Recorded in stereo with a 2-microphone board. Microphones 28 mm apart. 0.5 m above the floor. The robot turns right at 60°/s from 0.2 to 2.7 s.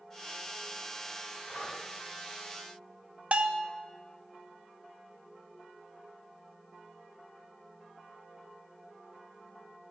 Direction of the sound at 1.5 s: 75° left (ahead or behind).